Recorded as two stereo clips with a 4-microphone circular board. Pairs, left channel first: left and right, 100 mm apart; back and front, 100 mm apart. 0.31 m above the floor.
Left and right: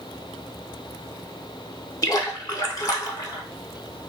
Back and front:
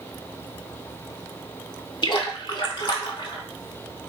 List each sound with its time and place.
2.0 s a splash: 140° left, 0.5 m